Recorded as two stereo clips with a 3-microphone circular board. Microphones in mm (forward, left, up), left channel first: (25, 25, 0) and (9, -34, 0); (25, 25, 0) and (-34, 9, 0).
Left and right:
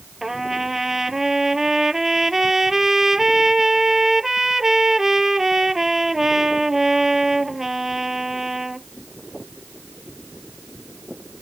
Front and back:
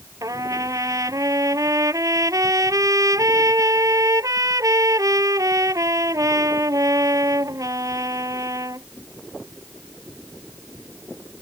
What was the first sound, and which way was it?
A trumpet, 170° left.